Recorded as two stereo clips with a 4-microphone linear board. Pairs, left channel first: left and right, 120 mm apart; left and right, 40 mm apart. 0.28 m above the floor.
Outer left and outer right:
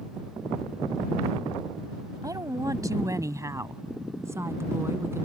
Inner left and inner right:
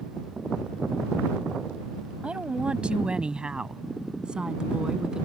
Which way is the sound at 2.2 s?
30° right (ahead or behind).